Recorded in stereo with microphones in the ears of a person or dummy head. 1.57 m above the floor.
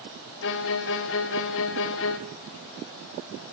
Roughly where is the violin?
Left.